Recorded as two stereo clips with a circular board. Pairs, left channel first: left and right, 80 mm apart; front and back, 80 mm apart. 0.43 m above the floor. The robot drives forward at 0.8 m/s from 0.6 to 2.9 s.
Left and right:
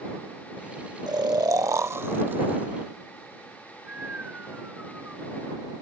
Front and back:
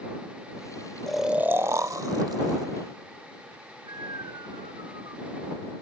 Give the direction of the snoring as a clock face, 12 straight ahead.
3 o'clock.